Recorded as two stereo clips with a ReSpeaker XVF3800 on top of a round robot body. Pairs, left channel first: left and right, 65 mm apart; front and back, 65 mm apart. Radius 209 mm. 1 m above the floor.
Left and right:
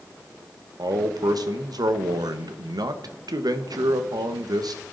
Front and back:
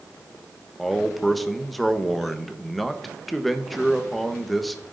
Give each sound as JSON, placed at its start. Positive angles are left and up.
{"t": 0.8, "sound": "a man speaking", "azimuth_deg": -90, "distance_m": 1.4}